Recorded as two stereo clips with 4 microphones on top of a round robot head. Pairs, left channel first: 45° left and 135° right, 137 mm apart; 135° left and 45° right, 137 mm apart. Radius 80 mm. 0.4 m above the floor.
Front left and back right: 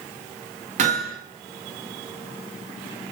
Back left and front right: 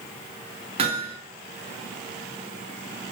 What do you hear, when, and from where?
0.8 s hammering: 95° right, 4.5 m